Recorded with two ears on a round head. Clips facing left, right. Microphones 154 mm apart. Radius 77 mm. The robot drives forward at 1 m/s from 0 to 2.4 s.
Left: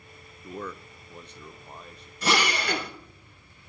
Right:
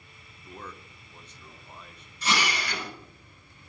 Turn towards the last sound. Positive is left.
turn(degrees=45)  # may be behind; listen again after turning